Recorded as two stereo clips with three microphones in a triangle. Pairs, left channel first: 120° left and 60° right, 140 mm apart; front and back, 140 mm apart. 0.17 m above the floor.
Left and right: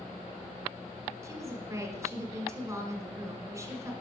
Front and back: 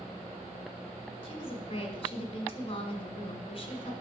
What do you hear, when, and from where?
1.2 s a woman speaking: 5° right, 1.9 m